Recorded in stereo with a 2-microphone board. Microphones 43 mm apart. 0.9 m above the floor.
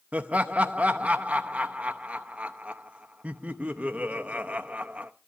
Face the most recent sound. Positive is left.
turn(degrees=-30)  # may be behind; listen again after turning